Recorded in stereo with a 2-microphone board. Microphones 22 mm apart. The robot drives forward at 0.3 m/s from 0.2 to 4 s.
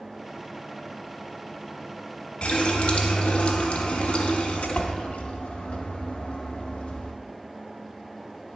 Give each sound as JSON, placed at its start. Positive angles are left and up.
{"t": 2.4, "sound": "a running tap", "side_deg": 50, "distance_m": 0.8}